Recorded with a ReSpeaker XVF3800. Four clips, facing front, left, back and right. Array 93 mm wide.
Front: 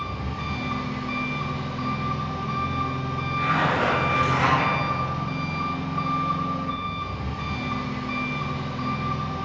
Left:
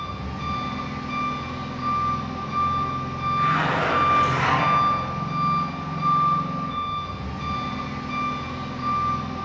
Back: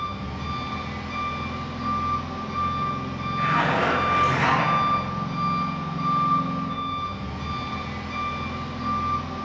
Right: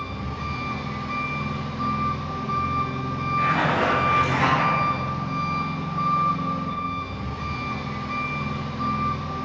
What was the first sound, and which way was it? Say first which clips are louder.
An engine running: left 1 dB, even; 10° left.